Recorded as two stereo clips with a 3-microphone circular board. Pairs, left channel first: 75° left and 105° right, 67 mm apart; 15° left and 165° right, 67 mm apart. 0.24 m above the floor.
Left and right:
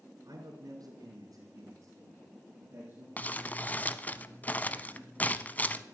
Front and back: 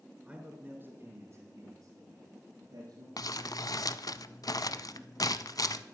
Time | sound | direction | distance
0.2 | a man speaking | 95° right | 3 m
3.2 | crumpling | 10° left | 0.6 m